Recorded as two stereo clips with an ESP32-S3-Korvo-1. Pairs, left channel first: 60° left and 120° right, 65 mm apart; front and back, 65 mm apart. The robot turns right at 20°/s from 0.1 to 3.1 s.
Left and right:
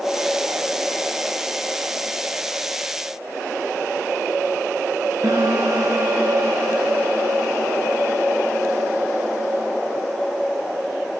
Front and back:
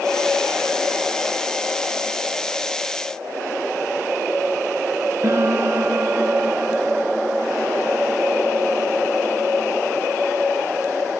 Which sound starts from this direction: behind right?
A piano, at 5.2 s.